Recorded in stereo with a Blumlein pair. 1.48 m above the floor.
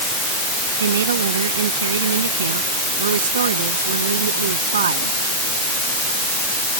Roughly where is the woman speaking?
Ahead right.